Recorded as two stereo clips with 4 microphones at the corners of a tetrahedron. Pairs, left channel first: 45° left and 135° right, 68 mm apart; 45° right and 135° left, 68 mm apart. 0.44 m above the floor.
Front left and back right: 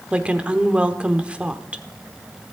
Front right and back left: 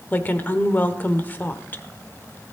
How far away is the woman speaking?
About 0.9 m.